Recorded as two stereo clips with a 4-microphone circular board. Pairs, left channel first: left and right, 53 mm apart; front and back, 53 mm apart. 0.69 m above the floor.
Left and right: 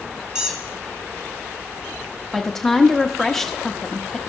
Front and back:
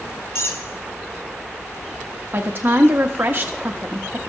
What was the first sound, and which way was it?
A squeak, 15° right.